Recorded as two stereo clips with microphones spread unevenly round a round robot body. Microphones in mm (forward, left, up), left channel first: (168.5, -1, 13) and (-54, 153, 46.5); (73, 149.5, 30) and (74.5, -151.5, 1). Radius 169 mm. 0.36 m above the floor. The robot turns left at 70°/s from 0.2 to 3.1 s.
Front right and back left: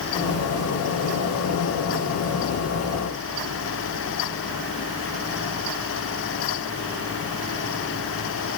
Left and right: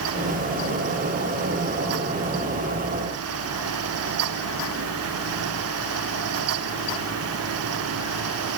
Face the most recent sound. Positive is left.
No sound to turn to.